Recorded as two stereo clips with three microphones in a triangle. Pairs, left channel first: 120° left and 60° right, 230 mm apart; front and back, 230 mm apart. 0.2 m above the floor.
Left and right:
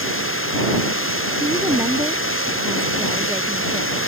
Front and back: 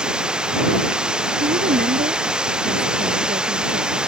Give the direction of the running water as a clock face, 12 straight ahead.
9 o'clock.